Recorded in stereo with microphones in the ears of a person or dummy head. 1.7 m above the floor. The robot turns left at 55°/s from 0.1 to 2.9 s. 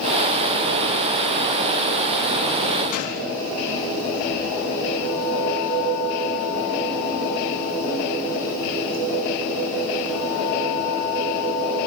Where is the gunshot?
55° left (ahead or behind), 5 m.